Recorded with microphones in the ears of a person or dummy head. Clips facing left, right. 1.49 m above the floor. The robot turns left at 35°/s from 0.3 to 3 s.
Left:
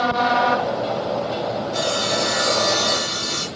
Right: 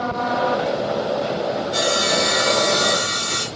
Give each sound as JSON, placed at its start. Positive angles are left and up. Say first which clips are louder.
{"t": 1.7, "sound": "sawing", "louder": "right 2 dB", "azimuth_deg": -100, "distance_m": 2.5}